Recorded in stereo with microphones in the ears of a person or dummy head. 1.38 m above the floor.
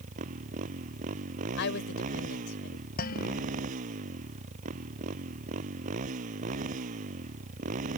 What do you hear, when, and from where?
0.0 s a motorcycle: 40° right (ahead or behind)
1.6 s a woman speaking: 70° left (ahead or behind)
3.0 s dishes clattering: 50° left (ahead or behind)